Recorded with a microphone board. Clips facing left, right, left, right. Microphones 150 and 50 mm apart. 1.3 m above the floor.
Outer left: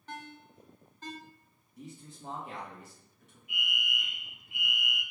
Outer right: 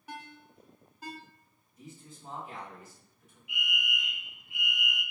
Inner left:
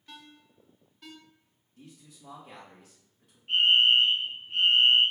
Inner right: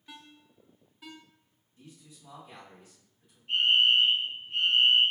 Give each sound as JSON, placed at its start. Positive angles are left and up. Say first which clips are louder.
{"t": 0.1, "sound": "a ringtone", "louder": "outer left 1 dB, even", "side_deg": -10, "distance_m": 0.6}
{"t": 1.8, "sound": "a man speaking", "louder": "outer left 3 dB, inner left 1 dB", "side_deg": 80, "distance_m": 1.4}
{"t": 3.5, "sound": "a fire alarm", "louder": "outer right 2 dB, inner left 2 dB", "side_deg": 45, "distance_m": 1.9}